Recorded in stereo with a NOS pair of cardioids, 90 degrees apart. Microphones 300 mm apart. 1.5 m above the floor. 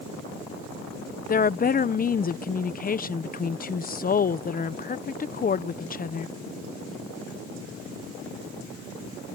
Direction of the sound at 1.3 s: 30° left.